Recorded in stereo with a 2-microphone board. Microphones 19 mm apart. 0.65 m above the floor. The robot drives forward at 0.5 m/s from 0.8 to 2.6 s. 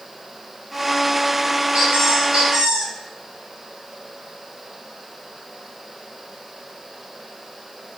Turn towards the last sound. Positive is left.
turn(degrees=-75)  # may be behind; listen again after turning